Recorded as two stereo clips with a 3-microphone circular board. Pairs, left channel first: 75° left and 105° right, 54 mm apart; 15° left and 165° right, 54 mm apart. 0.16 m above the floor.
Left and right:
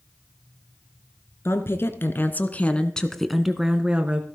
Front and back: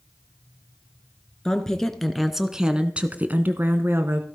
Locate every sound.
1.4 s a woman speaking: 90° left, 1.9 m; by 4.2 s 155° right, 1.6 m